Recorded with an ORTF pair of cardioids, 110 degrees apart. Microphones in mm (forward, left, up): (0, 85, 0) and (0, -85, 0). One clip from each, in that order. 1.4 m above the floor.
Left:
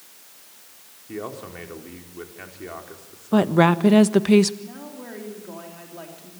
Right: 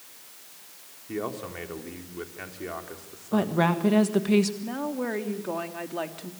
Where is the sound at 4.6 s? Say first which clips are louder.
Right 8 dB; 55° right, 3 m.